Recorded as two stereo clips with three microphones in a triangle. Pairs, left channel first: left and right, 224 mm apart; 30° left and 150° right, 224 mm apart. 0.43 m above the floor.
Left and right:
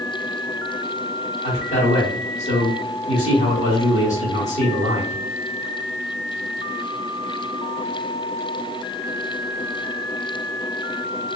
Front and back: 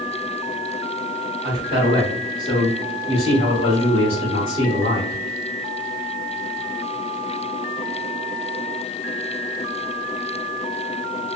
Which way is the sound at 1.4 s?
75° left.